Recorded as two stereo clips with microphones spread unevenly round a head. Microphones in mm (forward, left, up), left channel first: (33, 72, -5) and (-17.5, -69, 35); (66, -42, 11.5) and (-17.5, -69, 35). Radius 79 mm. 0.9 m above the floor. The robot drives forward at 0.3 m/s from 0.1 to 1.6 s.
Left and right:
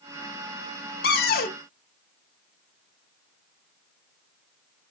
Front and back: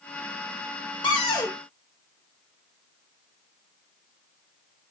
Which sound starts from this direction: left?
A cupboard door, at 1.0 s.